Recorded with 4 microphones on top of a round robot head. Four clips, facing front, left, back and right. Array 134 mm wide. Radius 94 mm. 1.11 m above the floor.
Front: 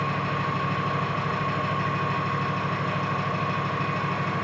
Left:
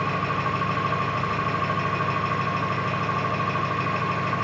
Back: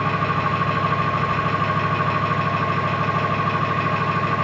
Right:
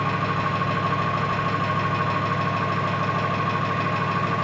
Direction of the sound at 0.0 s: 160° right.